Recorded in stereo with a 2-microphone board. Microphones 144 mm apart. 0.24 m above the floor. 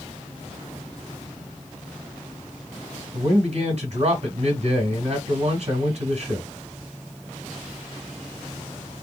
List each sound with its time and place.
3.1 s a man speaking: 50° right (ahead or behind), 2 m